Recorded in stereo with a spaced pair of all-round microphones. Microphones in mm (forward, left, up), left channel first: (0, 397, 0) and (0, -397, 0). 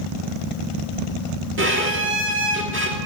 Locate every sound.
1.6 s a violin: 15° right (ahead or behind), 1.5 m